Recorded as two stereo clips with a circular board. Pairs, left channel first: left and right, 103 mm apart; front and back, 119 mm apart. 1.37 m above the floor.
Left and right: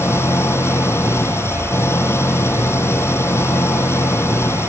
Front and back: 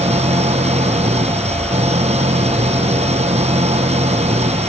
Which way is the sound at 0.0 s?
155° left.